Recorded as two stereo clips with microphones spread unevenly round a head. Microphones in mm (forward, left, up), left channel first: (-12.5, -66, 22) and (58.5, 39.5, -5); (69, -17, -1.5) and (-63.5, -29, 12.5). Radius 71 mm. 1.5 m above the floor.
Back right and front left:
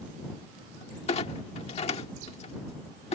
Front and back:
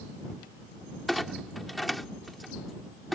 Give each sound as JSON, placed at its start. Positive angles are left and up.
{"t": 1.1, "sound": "a clunk", "azimuth_deg": -85}